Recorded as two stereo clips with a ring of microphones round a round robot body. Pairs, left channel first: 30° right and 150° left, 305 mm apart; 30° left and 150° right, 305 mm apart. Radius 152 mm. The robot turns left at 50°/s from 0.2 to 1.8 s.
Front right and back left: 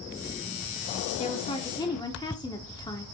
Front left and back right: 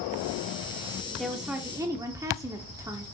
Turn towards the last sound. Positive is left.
turn(degrees=-85)